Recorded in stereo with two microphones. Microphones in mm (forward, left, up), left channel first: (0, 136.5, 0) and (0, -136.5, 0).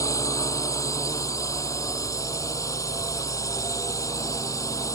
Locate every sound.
0.0 s a drone: 10° left (ahead or behind)